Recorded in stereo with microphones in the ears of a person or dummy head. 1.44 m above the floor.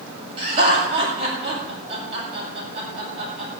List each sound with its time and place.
0.4 s laughter: 35° right (ahead or behind), 7.5 m